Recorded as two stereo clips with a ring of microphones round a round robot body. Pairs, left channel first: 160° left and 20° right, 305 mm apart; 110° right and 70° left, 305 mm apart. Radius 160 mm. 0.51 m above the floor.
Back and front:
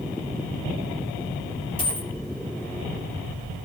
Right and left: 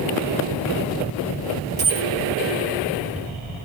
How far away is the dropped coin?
About 3 m.